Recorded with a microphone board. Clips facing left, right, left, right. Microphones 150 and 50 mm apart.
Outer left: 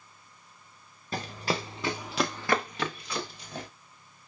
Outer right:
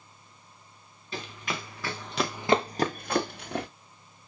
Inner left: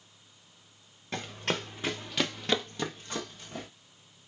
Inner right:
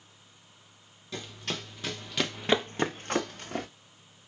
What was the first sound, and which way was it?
Running footsteps, 45° left (ahead or behind).